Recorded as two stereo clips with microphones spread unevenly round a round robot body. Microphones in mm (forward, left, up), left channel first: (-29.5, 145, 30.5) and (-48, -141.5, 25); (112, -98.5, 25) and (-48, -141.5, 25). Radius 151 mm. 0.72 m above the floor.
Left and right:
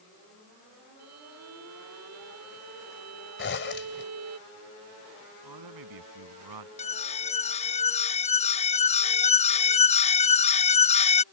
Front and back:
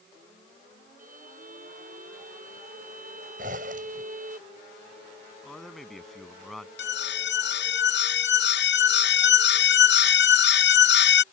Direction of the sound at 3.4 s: 135° left.